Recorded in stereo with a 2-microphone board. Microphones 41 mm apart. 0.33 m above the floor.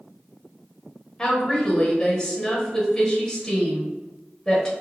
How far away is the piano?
No piano in this recording.